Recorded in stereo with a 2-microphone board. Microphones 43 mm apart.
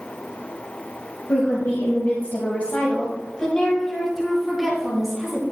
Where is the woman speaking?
65° left (ahead or behind), 2.0 m; by 5.4 s 5° right (ahead or behind), 3 m.